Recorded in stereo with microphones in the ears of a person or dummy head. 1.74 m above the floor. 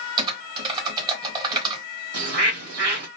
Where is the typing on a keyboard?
25° right (ahead or behind), 0.9 m.